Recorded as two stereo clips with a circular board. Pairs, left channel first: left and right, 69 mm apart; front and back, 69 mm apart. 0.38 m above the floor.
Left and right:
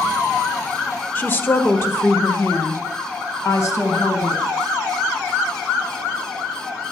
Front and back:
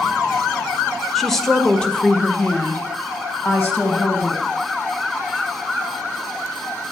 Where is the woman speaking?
85° left, 1.4 m; by 4.4 s 50° left, 3 m.